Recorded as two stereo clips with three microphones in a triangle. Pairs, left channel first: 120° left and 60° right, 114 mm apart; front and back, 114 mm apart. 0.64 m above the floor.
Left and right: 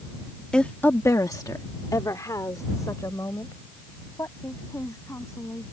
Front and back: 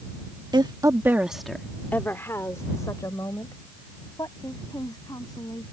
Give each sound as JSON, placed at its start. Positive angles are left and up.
{"t": 0.5, "sound": "a woman speaking", "azimuth_deg": -160}